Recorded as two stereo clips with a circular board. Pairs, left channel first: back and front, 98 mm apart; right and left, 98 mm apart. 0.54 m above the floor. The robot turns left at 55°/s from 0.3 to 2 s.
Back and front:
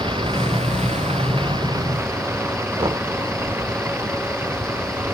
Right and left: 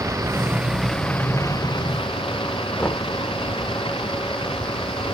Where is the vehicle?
30° left; by 5.2 s 65° right.